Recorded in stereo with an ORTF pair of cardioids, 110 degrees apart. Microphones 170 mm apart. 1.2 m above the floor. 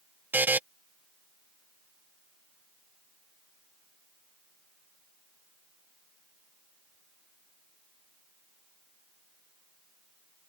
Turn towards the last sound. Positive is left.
turn(degrees=-10)